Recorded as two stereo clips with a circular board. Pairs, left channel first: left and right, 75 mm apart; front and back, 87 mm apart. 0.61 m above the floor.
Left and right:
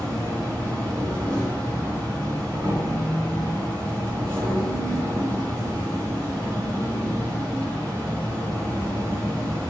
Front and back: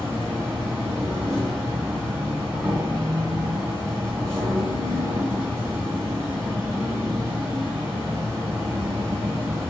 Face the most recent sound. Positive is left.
turn(degrees=-120)